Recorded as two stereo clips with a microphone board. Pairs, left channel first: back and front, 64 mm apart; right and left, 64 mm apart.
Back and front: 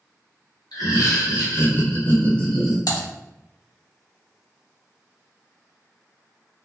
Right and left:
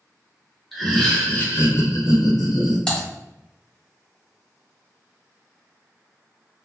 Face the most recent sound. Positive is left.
turn(degrees=-165)